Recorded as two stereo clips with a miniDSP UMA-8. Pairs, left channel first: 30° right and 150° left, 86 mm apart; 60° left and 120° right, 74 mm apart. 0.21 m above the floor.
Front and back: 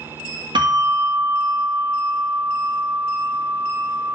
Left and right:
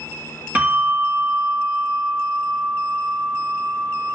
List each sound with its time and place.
0.6 s a bell: 175° left, 2 m